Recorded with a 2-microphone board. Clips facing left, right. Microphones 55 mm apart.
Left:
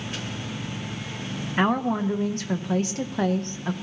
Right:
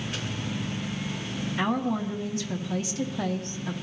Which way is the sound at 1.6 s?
50° left (ahead or behind).